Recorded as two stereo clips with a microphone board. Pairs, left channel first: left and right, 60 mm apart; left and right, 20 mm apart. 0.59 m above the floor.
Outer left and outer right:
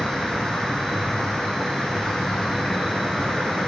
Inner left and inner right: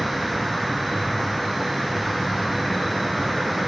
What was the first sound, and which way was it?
An insect, 5° right (ahead or behind).